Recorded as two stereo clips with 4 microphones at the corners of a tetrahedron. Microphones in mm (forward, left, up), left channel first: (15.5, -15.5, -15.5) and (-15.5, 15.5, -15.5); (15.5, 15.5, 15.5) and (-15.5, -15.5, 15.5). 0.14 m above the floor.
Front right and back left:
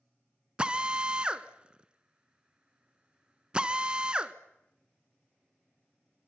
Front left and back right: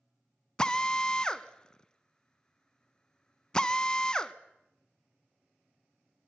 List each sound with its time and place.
0.6 s a drill: 100° left, 0.9 m